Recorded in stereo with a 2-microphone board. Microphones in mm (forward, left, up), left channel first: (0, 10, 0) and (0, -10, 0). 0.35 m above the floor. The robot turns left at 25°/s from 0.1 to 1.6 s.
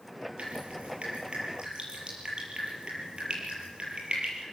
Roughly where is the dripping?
Right.